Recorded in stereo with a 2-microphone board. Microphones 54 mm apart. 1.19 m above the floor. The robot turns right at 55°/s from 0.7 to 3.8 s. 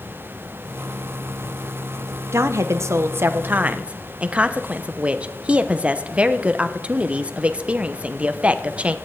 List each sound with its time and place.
2.3 s a woman speaking: 105° right, 0.7 m; by 8.9 s 25° right, 0.7 m